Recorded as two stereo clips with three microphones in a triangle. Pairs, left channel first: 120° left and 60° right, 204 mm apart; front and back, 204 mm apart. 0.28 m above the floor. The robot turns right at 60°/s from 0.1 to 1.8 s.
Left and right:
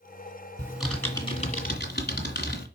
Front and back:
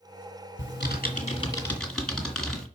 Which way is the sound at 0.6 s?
15° left.